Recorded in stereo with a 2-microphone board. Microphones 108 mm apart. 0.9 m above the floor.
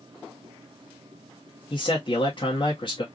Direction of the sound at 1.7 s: 50° left (ahead or behind).